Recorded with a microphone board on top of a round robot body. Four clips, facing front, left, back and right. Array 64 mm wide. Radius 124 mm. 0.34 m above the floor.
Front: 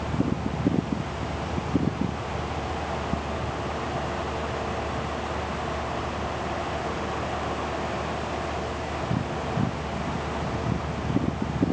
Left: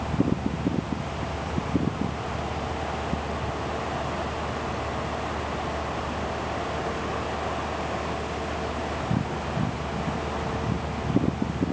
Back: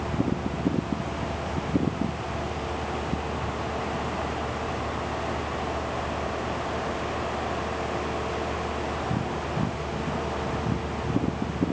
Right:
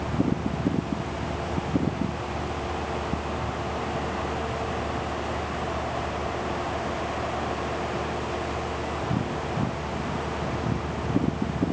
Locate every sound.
Only background noise.